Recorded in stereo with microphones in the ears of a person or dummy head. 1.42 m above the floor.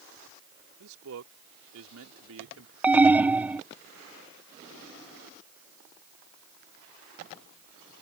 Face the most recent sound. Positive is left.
turn(degrees=-15)  # may be behind; listen again after turning